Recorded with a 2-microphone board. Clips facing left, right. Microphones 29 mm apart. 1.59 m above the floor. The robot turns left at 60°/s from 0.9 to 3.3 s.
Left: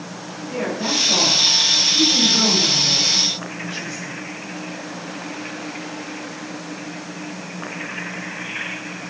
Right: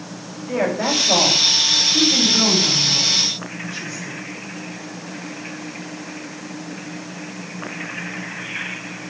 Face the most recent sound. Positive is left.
turn(degrees=45)  # may be behind; listen again after turning